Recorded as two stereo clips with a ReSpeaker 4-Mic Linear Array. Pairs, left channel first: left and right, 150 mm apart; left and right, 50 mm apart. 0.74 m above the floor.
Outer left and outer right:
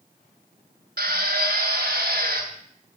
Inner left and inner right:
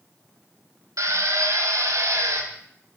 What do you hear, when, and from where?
1.0 s a drill: 80° right, 3.5 m